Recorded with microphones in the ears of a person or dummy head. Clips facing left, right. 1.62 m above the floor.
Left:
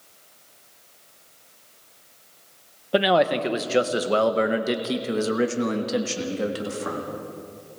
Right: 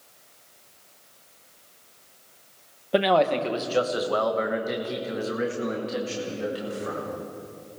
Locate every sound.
2.9 s a man speaking: centre (ahead or behind), 1.1 m; by 7.1 s 70° left (ahead or behind), 2.5 m